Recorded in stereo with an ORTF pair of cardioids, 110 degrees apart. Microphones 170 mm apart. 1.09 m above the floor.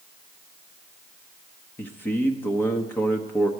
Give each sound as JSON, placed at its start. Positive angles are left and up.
{"t": 1.8, "sound": "a man speaking", "azimuth_deg": 15, "distance_m": 1.0}